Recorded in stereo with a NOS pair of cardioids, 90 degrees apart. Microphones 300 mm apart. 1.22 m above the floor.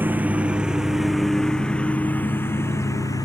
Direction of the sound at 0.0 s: 5° right.